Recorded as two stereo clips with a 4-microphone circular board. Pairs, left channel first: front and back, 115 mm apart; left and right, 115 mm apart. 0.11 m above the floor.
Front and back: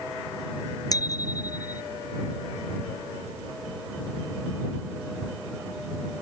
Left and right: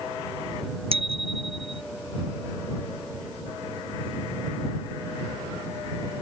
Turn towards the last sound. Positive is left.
turn(degrees=-55)